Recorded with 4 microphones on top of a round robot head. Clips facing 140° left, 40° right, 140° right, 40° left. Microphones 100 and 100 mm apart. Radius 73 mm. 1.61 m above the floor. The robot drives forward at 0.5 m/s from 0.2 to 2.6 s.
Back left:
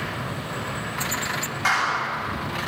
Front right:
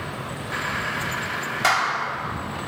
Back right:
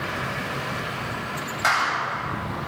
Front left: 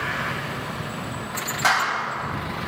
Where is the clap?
45° right, 7.5 m.